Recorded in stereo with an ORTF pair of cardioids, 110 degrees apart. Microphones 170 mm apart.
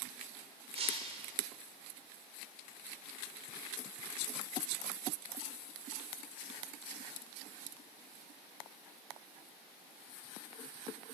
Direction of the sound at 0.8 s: 40° right.